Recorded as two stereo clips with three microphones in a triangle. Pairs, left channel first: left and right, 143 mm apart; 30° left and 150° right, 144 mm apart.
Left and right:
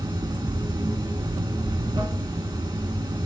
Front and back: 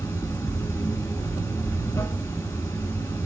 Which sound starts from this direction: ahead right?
Running water, at 0.0 s.